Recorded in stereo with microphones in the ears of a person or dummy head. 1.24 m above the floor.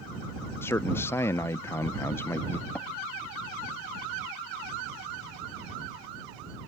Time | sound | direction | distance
0.6 | a man speaking | 15° left (ahead or behind) | ?
2.8 | tapping | 5° left (ahead or behind) | ?